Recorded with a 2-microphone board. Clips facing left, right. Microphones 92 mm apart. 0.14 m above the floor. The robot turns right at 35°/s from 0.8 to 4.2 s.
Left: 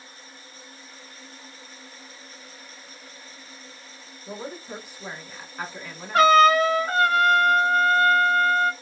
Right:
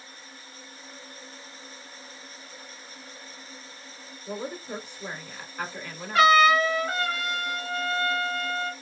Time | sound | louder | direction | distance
4.3 | a woman speaking | right 1 dB | 10° left (ahead or behind) | 1.2 m
6.1 | a trumpet | left 3 dB | 45° left (ahead or behind) | 0.8 m